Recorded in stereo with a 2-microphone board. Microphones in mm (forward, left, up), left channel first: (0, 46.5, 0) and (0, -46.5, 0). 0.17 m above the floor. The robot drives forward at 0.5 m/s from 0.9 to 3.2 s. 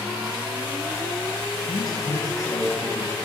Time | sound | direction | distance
1.7 | a man speaking | 45° left (ahead or behind) | 2 m